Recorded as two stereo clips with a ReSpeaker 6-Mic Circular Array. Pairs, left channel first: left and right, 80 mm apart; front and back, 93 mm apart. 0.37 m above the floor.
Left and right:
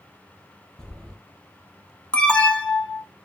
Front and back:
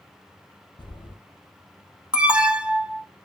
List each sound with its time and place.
0.8 s footsteps: 10° left, 0.7 m
2.1 s an alarm: 130° left, 0.5 m